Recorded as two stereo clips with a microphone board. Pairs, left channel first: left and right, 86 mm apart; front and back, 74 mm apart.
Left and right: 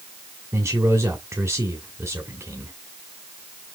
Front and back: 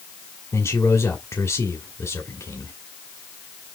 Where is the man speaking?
40° right, 1.9 m.